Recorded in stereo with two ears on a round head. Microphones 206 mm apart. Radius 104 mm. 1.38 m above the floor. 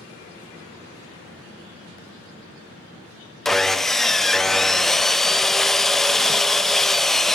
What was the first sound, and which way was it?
Sawing, centre (ahead or behind).